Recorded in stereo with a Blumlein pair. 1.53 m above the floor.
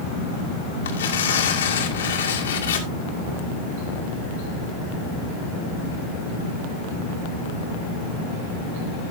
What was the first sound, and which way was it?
Tearing paper, 65° left.